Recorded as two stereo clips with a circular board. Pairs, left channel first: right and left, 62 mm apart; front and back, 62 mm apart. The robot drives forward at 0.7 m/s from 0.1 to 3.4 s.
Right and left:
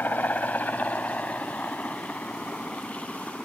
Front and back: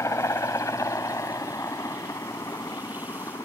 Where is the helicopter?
30° right; by 3.5 s 15° right.